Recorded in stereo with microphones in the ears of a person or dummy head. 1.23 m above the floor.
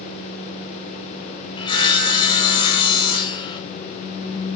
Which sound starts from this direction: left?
Sawing, at 1.6 s.